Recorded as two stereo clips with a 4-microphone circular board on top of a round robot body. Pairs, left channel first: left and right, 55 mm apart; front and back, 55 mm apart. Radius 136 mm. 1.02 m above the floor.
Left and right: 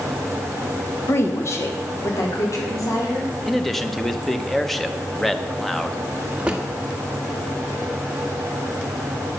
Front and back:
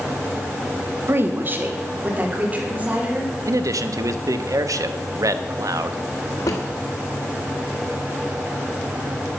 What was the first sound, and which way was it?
A woman speaking, 135° left.